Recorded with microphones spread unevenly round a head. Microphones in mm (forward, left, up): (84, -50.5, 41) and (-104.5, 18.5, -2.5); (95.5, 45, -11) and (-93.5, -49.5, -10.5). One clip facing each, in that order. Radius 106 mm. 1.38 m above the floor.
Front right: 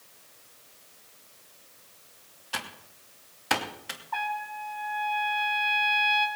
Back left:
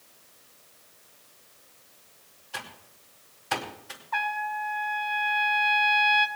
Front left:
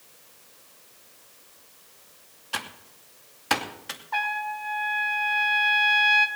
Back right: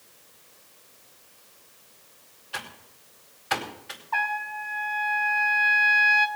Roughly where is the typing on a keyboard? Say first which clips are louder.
Front right 2 dB, front left 3 dB; ahead.